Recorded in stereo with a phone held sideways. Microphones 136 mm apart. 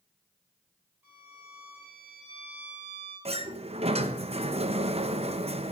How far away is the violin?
About 7.5 m.